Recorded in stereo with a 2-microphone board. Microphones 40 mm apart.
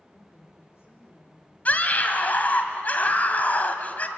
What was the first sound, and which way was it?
A woman speaking, 75° left (ahead or behind).